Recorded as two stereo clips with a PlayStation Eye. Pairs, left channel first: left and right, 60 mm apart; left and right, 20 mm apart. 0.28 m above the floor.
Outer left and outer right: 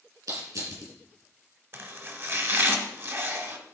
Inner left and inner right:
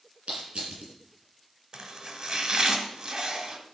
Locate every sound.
0.3 s crushing: 70° right (ahead or behind), 5 m
1.7 s chopping: 40° right (ahead or behind), 1.1 m